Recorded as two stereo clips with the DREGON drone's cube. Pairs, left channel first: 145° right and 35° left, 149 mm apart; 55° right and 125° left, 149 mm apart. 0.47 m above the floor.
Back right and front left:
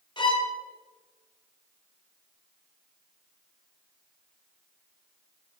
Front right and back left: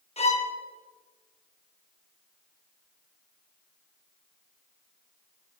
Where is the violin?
90° right, 2.5 m.